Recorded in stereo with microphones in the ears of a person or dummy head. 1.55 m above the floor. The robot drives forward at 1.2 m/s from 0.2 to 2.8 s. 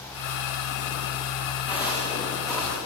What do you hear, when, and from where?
1.7 s footsteps: 20° left (ahead or behind), 6 m; by 2.8 s 15° left (ahead or behind), 8.5 m